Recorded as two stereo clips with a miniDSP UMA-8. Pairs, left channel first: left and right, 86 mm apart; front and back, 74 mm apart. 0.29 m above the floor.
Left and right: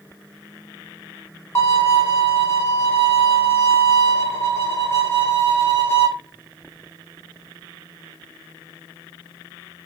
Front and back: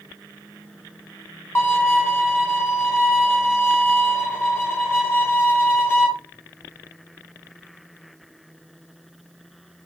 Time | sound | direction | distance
1.6 | a violin | 50° left | 0.8 m